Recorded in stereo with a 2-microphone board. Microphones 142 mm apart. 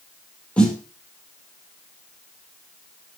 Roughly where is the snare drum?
Centre.